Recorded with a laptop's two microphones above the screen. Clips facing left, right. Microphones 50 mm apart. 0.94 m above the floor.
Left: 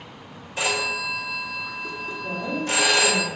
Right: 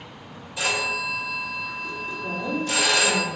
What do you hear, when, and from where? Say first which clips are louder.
0.6 s a phone ringing: even; 35° left (ahead or behind), 1.5 m
2.2 s a woman speaking: even; 65° right (ahead or behind), 1.7 m